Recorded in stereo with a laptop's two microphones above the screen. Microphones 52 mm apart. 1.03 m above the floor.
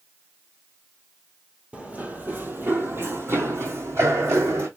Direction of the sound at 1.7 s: 25° right (ahead or behind).